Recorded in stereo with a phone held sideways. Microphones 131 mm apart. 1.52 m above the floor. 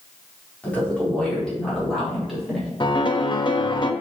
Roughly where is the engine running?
I don't hear an engine running.